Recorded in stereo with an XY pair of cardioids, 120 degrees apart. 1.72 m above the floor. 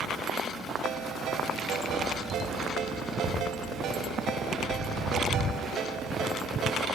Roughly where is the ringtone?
Right.